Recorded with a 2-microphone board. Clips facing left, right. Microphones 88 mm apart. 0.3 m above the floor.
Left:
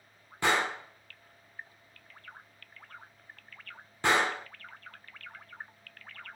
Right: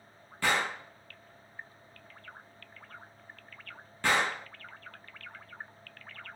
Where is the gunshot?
20° left (ahead or behind), 1.4 m.